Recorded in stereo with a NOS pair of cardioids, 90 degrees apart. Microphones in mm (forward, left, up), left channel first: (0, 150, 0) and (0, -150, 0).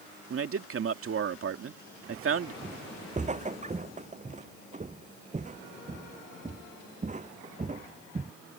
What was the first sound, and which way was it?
A man speaking, 45° right.